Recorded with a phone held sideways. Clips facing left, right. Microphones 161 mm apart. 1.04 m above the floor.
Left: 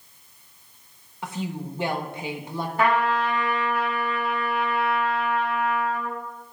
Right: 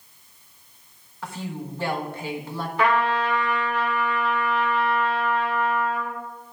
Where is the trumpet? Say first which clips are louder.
Even; 45° left (ahead or behind), 2.5 m.